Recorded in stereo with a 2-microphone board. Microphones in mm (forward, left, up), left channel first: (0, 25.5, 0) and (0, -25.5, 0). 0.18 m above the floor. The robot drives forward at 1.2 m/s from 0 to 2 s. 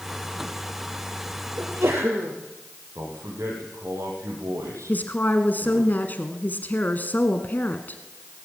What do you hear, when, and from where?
1.6 s a sneeze: 60° right (ahead or behind), 4 m; by 2.4 s 55° right (ahead or behind), 4 m
3.0 s a man speaking: 70° right (ahead or behind), 8 m
4.9 s a woman speaking: 35° left (ahead or behind), 1.4 m